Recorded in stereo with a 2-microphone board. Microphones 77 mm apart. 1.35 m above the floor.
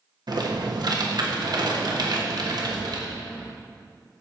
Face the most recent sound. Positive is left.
turn(degrees=-65)  # may be behind; listen again after turning